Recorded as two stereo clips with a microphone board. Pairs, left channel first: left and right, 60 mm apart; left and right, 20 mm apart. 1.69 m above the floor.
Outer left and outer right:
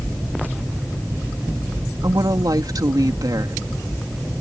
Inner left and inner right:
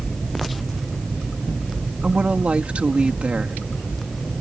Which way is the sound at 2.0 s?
85° right.